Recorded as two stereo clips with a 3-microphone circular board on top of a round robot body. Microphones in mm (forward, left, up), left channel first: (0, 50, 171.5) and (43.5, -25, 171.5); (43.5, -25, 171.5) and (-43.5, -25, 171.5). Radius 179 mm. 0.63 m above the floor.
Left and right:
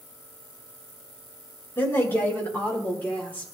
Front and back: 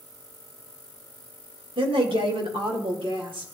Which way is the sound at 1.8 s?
175° right.